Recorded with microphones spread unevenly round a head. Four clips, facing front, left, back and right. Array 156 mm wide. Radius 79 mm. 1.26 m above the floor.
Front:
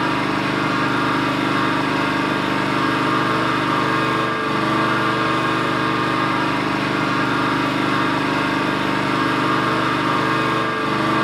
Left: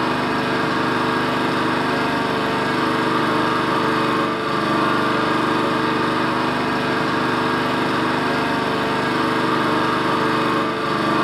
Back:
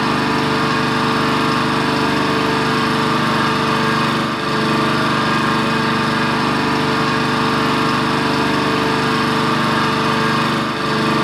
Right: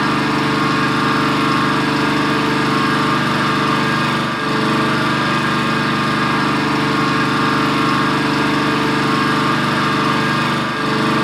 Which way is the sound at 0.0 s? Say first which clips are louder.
Right 3 dB, back 3 dB; 160° right.